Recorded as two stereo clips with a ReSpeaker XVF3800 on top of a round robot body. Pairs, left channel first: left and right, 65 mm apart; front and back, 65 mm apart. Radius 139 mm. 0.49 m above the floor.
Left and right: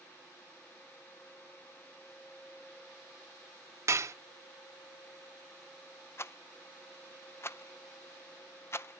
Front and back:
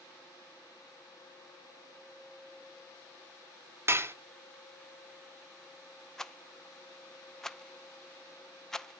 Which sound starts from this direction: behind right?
Dishes clattering, at 3.9 s.